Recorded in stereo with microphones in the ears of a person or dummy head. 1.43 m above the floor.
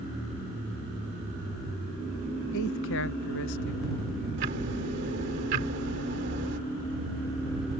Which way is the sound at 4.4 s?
50° right (ahead or behind).